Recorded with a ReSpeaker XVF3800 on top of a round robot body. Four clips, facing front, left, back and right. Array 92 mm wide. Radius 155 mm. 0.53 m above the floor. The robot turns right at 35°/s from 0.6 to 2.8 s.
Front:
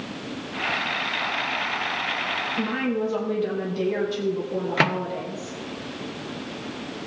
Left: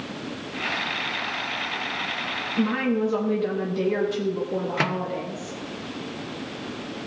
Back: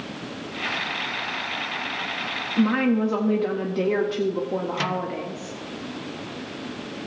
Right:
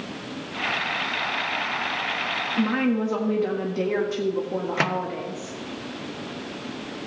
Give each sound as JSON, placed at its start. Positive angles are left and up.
{"t": 2.6, "sound": "a woman speaking", "azimuth_deg": -165, "distance_m": 1.7}
{"t": 4.8, "sound": "a microwave", "azimuth_deg": -10, "distance_m": 1.0}